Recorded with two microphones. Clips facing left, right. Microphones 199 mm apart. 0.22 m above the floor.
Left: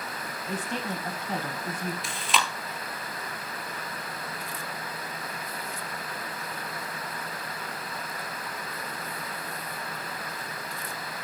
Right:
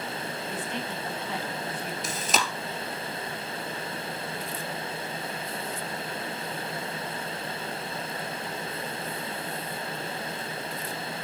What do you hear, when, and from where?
0.5 s a woman speaking: 40° left (ahead or behind), 1.3 m; by 1.9 s 45° left (ahead or behind), 1.5 m
2.0 s chewing: 45° right (ahead or behind), 1.1 m